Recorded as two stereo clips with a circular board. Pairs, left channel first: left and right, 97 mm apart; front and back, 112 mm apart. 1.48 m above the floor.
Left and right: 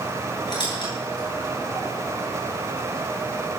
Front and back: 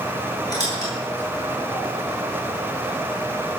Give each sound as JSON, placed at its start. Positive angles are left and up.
{"t": 0.5, "sound": "a squeak", "azimuth_deg": 50, "distance_m": 9.0}